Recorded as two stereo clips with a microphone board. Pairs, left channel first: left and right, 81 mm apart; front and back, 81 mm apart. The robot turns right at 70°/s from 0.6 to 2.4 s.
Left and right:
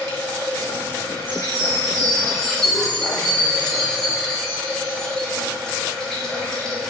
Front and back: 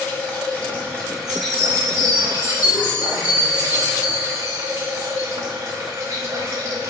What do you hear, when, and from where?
0.0 s running water: 45° left, 0.8 m; by 6.9 s 175° left, 0.8 m
1.3 s a chime: 70° right, 1.9 m; by 5.3 s 10° left, 1.9 m